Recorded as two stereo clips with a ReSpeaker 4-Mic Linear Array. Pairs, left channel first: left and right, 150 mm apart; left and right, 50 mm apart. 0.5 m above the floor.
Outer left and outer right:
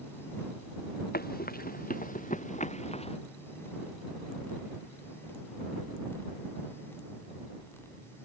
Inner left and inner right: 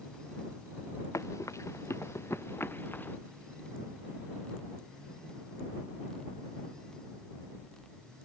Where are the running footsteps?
75° left (ahead or behind); by 3.2 s 40° left (ahead or behind).